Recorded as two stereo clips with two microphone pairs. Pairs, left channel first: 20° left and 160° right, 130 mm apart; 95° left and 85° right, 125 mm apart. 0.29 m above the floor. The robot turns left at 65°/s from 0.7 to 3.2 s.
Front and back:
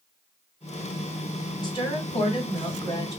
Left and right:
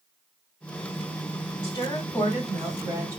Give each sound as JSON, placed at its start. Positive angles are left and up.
{"t": 1.6, "sound": "a woman speaking", "azimuth_deg": 65, "distance_m": 2.0}